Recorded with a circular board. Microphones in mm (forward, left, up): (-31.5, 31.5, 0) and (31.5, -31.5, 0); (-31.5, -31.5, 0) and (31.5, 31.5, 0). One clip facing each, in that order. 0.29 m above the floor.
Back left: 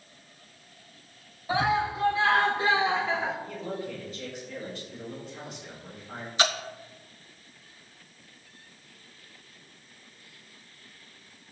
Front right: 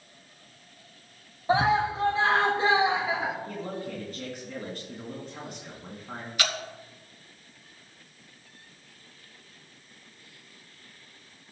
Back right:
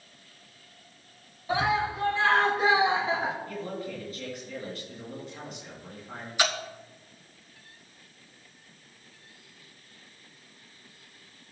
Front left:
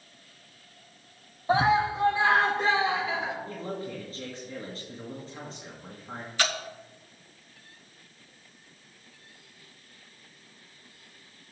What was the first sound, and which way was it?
A scream, 5° left.